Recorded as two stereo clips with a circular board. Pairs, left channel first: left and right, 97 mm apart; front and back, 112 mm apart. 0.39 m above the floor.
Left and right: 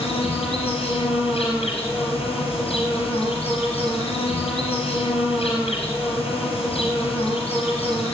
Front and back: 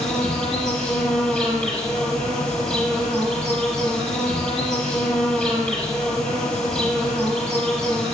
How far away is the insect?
About 5.5 m.